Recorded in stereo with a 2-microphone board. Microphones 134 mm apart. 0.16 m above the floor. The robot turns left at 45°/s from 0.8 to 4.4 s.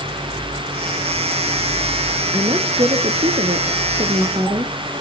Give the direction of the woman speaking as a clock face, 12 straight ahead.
1 o'clock.